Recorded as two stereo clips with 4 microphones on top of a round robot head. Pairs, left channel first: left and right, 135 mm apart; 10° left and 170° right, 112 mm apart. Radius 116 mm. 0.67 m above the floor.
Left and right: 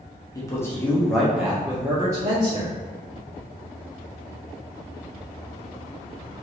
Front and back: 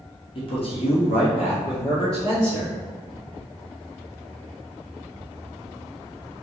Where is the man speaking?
30° left, 1.5 m; by 2.7 s 35° right, 2 m.